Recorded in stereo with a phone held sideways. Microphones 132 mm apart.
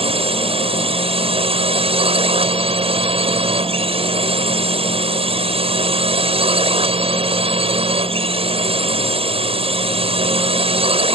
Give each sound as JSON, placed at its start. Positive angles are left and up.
{"t": 0.0, "sound": "a drone", "side_deg": -50}